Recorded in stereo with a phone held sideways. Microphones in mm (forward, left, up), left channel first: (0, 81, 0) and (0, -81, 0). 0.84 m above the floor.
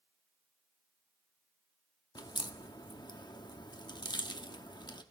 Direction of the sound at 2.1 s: 25° left (ahead or behind).